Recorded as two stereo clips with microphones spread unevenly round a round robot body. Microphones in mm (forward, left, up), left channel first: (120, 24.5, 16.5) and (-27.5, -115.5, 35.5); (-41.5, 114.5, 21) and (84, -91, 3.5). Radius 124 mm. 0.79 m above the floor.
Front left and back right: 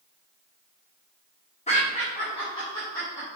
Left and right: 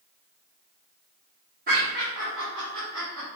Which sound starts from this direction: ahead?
Laughter, at 1.7 s.